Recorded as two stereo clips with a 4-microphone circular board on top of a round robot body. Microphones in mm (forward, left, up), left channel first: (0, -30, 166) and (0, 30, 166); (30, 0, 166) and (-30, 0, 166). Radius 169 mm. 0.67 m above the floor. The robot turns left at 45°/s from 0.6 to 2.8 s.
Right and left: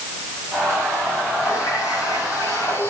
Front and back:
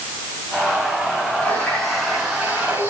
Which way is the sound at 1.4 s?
60° right.